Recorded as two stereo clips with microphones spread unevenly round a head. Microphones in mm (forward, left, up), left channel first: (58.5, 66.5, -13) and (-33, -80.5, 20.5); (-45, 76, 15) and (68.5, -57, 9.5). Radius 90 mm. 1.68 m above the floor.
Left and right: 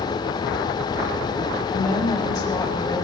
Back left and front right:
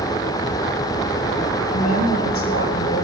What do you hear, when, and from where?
1.7 s a woman speaking: 130° left, 5.5 m